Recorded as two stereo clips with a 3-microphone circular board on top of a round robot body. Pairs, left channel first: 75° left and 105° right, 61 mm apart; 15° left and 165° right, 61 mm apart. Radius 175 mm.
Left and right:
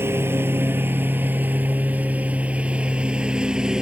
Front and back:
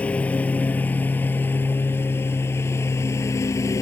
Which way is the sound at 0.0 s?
55° right.